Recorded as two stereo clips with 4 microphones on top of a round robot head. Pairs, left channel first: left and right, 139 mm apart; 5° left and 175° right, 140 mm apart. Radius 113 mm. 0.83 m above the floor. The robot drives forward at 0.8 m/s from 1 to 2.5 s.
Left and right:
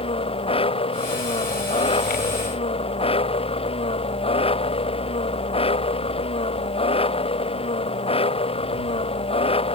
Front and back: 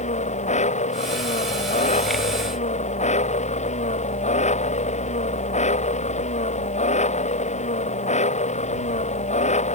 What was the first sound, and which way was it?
An engine running, 40° left.